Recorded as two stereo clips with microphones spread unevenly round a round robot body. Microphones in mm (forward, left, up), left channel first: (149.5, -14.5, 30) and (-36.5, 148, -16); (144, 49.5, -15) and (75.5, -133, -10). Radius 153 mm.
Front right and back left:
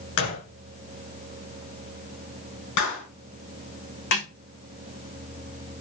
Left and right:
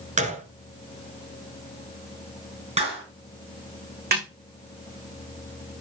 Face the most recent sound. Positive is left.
turn(degrees=-75)